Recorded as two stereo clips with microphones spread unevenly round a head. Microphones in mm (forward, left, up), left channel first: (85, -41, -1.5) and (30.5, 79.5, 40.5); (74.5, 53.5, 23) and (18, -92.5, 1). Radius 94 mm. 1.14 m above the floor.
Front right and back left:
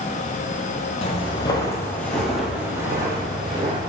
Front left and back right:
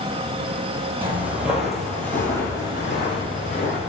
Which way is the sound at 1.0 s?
35° right.